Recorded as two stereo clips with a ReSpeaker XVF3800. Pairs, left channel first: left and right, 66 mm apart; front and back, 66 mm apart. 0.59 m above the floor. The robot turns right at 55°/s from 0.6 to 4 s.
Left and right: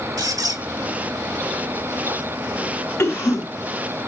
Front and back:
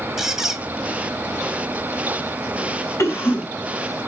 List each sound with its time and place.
0.2 s a squeak: 100° right, 2 m; by 0.6 s 95° right, 2 m
3.0 s a cough: 45° left, 6 m; by 4.1 s 100° left, 6 m